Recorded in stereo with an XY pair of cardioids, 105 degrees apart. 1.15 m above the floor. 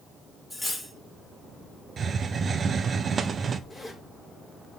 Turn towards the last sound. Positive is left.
turn(degrees=10)